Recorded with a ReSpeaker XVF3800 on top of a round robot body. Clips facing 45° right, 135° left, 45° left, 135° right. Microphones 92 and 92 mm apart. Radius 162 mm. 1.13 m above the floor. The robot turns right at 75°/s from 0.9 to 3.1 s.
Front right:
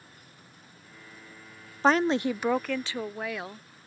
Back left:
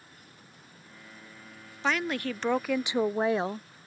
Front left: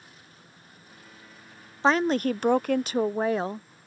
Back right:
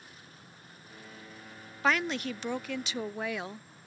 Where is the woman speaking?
10° right; by 3.7 s 85° left.